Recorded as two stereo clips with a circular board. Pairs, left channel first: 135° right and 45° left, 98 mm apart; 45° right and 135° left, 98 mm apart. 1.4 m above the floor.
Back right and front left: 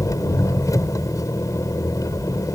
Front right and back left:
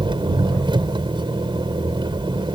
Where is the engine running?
170° left.